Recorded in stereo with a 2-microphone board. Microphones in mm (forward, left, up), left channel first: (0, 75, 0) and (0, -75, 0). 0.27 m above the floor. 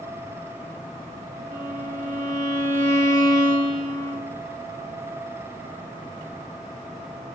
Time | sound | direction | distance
1.5 | a violin | 70° right (ahead or behind) | 0.7 m